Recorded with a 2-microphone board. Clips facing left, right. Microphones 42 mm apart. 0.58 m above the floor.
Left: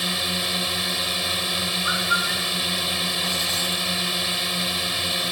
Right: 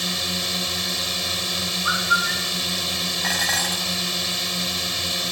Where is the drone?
10° left (ahead or behind).